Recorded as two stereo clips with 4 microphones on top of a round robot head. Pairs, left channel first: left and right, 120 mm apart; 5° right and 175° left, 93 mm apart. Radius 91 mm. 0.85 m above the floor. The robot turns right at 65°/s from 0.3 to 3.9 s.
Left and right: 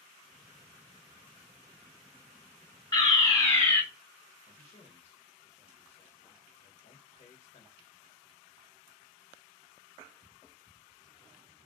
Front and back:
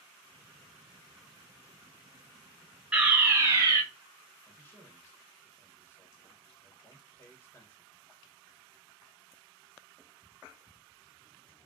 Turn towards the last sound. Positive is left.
turn(degrees=55)